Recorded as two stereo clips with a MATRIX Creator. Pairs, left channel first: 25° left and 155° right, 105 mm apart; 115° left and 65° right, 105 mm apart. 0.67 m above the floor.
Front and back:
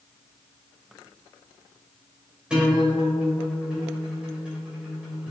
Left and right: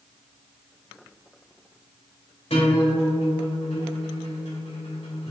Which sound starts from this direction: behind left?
A guitar, at 2.5 s.